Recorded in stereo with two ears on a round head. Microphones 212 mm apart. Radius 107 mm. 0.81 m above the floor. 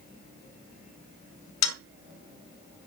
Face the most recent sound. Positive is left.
turn(degrees=75)  # may be behind; listen again after turning